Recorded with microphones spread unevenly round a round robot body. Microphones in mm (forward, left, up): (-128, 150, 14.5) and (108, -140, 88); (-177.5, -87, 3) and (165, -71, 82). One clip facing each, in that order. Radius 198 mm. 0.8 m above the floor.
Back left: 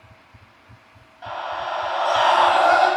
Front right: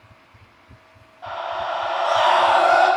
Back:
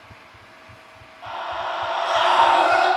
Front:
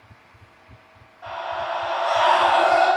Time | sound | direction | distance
1.2 | a scream | 125° left | 1.3 m